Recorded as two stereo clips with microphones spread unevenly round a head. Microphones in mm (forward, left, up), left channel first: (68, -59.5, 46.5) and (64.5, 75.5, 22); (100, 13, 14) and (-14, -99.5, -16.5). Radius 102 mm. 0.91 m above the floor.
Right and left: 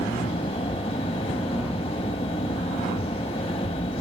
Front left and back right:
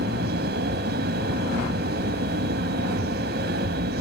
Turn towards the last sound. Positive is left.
turn(degrees=-150)